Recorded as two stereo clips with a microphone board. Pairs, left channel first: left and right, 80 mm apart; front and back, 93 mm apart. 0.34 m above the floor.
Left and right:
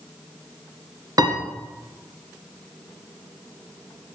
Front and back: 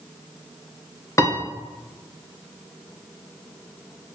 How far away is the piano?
About 1.7 m.